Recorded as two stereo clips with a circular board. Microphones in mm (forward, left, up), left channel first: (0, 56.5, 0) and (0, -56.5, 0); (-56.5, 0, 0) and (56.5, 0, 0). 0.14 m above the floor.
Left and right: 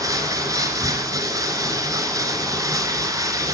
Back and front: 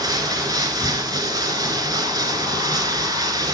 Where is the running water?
40° right, 1.2 m.